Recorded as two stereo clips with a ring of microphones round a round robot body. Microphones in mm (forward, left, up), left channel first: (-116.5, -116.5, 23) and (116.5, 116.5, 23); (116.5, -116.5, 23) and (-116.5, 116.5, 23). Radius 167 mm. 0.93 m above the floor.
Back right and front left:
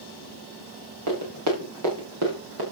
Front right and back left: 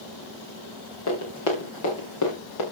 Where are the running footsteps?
5° left, 6 m; by 2.6 s 5° right, 6 m.